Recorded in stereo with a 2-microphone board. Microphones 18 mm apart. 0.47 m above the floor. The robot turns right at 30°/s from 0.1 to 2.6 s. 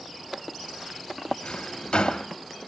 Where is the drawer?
80° left, 0.9 m; by 2.3 s 75° left (ahead or behind), 0.9 m.